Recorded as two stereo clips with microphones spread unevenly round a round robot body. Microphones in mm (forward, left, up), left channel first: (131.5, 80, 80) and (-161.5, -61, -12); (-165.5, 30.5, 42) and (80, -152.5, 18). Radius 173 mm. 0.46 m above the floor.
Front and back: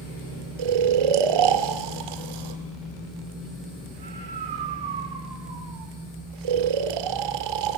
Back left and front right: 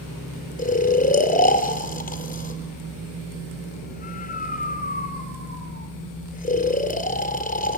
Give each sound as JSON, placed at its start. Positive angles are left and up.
{"t": 0.6, "sound": "snoring", "azimuth_deg": -150, "distance_m": 2.0}